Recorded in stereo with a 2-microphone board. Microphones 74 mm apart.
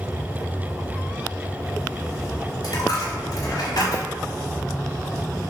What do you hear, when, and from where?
2.6 s a dropped coin: 65° left (ahead or behind), 1.1 m